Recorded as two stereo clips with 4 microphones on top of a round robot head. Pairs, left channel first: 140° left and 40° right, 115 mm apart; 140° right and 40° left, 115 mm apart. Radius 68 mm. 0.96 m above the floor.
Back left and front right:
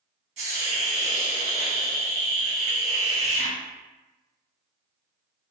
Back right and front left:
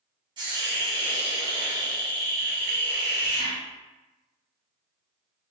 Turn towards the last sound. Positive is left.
turn(degrees=-10)